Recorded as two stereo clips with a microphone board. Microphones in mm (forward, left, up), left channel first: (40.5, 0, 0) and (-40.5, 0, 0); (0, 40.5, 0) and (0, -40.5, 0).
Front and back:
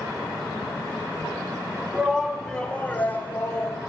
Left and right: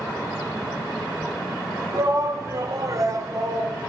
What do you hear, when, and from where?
1.9 s a shout: 110° right, 1.3 m; by 3.8 s 55° right, 2.5 m